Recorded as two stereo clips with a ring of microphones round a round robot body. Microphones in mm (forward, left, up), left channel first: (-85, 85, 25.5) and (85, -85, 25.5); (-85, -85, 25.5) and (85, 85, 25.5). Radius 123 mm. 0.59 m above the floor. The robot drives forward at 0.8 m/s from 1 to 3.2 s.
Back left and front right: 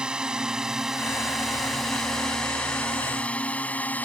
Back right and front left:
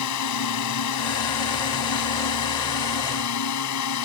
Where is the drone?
130° right; by 4.1 s 140° right.